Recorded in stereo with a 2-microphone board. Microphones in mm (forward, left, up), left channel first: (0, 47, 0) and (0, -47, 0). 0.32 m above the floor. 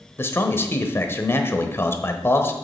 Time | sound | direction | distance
0.2 | a man speaking | 25° left (ahead or behind) | 1.1 m